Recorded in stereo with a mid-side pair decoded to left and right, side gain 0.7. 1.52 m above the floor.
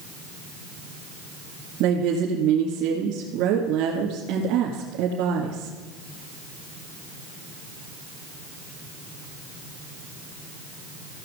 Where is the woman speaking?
65° right, 2.5 m.